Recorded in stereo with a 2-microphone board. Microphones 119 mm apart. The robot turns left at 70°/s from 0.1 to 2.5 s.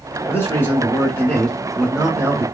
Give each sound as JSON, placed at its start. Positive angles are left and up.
{"t": 0.3, "sound": "a man speaking", "side_deg": 20, "distance_m": 1.2}